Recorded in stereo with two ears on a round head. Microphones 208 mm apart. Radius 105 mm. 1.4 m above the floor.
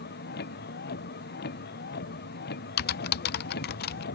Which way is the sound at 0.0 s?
45° left (ahead or behind).